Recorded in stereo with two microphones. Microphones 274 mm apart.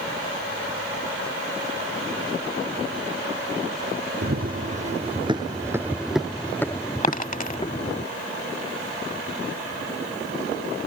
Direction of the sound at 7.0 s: 30° left (ahead or behind).